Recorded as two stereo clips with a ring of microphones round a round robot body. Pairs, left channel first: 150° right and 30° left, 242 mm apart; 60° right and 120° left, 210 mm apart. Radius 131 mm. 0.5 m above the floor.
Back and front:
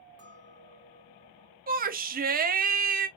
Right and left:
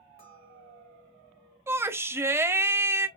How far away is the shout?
About 0.8 m.